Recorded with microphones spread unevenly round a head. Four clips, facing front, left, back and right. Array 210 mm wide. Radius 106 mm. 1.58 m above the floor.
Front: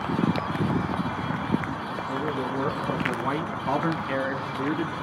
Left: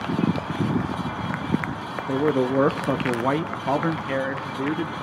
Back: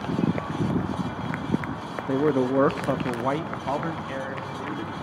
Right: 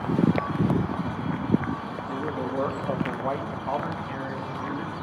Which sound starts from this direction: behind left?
A man speaking, at 2.1 s.